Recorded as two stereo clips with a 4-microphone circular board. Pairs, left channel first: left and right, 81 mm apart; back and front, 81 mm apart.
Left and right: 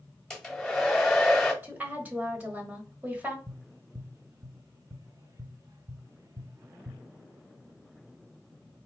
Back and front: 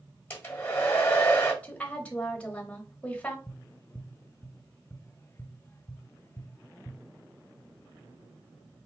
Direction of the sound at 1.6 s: 130° right.